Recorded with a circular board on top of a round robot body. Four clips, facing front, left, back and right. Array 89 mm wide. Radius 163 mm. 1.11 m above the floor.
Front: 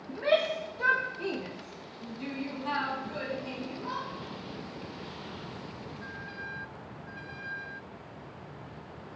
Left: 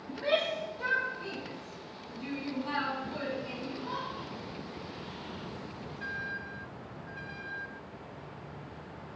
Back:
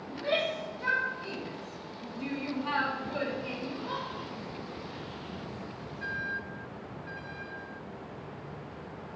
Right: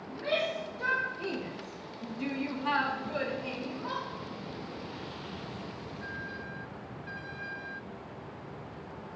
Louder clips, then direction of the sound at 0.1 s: Left 2 dB, front 4 dB; 20° left.